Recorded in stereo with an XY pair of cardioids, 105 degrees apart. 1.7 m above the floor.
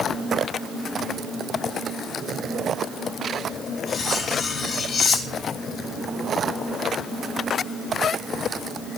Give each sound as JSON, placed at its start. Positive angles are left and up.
{"t": 3.9, "sound": "cutlery clinking", "azimuth_deg": 35, "distance_m": 2.5}